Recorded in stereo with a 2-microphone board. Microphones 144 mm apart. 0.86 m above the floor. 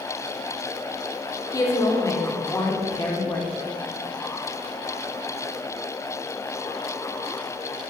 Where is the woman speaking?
20° left (ahead or behind), 2.5 m.